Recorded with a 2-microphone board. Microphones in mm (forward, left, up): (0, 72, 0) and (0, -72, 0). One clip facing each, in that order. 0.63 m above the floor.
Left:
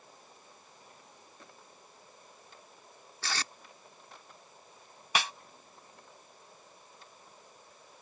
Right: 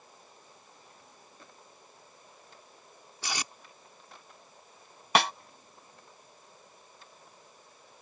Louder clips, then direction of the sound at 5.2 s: Right 8 dB; 65° right (ahead or behind).